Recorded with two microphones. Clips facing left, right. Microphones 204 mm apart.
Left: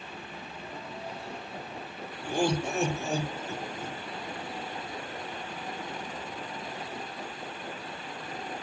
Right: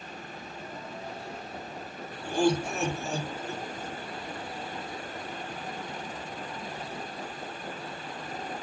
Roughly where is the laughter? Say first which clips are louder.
Right 2 dB; centre.